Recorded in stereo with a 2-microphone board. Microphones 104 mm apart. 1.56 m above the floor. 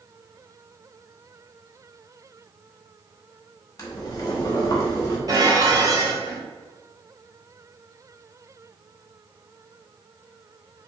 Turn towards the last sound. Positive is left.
turn(degrees=-35)  # may be behind; listen again after turning